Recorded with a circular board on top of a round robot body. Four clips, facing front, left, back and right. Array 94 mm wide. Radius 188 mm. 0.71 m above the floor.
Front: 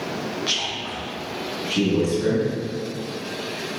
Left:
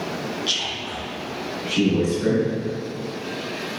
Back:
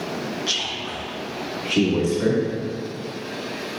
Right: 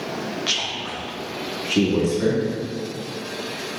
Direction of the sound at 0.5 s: 65° right.